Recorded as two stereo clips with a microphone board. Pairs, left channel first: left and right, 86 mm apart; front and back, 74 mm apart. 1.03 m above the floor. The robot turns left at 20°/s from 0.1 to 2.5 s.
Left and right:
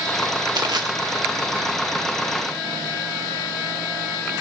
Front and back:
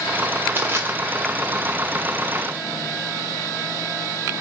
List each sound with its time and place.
0.6 s crushing: 120° right, 1.8 m; by 0.9 s 125° right, 1.8 m